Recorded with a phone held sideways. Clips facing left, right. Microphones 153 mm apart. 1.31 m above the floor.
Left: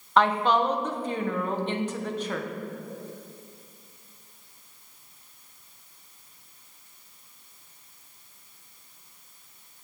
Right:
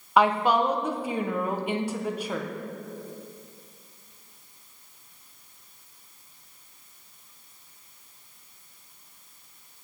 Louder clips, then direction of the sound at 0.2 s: Right 1 dB; 10° right (ahead or behind).